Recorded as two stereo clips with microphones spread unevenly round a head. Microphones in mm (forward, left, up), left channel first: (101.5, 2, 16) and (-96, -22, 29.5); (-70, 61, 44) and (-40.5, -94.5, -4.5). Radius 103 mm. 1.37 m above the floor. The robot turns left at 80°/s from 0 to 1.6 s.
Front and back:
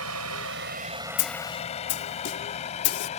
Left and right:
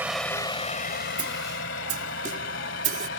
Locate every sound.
0.0 s a vehicle: 160° right; by 3.2 s 70° left
1.2 s a snare drum: 5° left; by 3.1 s 30° right